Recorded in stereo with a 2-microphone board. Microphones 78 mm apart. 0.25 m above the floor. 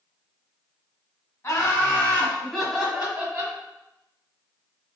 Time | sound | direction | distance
1.4 | laughter | 35° left (ahead or behind) | 1.9 m